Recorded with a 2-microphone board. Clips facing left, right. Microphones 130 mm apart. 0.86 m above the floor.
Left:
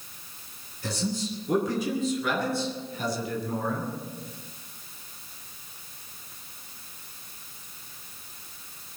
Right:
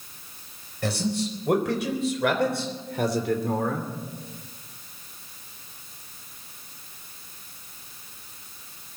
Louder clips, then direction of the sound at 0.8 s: Right 4 dB; 80° right.